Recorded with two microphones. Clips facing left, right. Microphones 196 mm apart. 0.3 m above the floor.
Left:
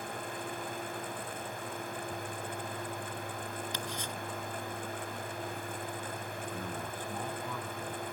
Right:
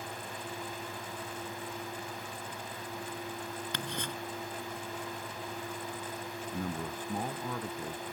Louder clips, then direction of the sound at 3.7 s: Right 1 dB; 70° right (ahead or behind).